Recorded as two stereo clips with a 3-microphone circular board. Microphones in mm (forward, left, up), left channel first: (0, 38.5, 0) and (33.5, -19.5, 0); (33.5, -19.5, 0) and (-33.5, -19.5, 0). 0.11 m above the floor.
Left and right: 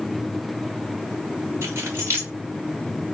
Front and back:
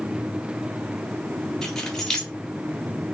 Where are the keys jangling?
80° right, 1.4 m.